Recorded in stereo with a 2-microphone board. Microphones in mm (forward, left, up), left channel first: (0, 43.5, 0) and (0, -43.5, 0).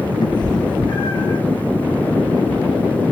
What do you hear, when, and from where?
0.2 s a cat meowing: 55° left (ahead or behind), 0.5 m